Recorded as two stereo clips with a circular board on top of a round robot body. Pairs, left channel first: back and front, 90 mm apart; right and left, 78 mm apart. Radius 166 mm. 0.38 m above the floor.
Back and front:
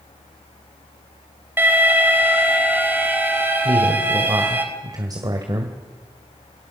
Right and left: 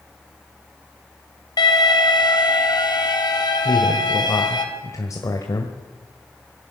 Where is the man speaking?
45° right, 2 m.